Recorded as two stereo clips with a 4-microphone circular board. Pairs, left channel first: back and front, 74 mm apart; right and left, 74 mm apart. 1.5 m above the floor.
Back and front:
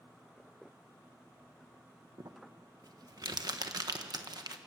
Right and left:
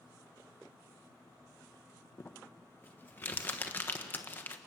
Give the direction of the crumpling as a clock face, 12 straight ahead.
1 o'clock.